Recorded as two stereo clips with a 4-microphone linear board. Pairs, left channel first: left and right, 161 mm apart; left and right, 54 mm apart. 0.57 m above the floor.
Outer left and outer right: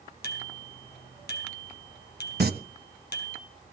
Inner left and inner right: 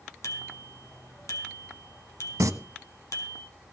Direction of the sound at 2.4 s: 75° right (ahead or behind).